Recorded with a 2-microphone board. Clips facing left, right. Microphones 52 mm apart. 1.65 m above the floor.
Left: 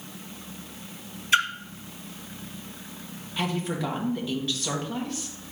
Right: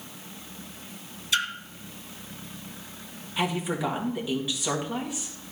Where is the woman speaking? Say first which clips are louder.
Right 1 dB; 15° right (ahead or behind), 1.8 m.